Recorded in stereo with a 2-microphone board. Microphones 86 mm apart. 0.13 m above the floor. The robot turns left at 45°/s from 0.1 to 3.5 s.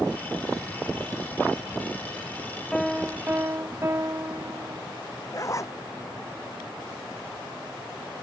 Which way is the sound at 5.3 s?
35° left (ahead or behind).